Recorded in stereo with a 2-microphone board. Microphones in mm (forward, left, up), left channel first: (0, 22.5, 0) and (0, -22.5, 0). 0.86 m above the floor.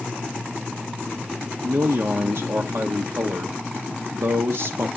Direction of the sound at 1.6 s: 65° right (ahead or behind).